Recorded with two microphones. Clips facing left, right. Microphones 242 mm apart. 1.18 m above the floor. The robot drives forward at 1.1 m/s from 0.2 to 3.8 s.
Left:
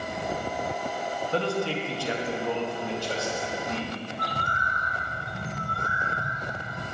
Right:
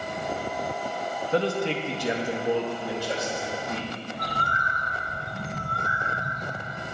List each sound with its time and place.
1.3 s a man speaking: 15° right (ahead or behind), 0.8 m; by 3.9 s 5° right (ahead or behind), 2.5 m
4.1 s a bird: 5° left (ahead or behind), 1.8 m